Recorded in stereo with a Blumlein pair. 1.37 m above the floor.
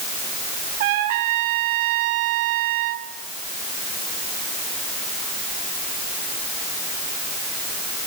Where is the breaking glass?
I don't hear breaking glass.